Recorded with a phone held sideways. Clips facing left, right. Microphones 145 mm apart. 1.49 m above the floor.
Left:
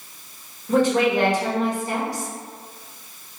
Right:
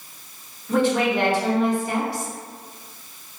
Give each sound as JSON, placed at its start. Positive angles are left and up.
{"t": 0.7, "sound": "a woman speaking", "side_deg": 40, "distance_m": 1.3}